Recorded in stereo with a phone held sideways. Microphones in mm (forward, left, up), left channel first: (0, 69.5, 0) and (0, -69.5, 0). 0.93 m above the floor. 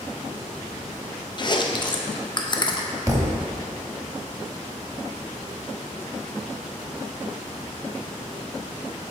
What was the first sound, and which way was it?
Chewing, 35° left (ahead or behind).